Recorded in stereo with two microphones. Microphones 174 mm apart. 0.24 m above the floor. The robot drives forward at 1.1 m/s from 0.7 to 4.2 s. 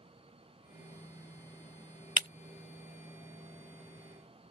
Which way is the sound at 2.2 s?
45° right (ahead or behind).